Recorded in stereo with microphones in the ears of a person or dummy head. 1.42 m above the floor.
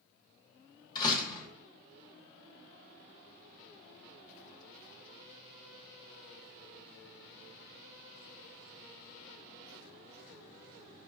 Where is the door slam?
20° left (ahead or behind), 1.0 m.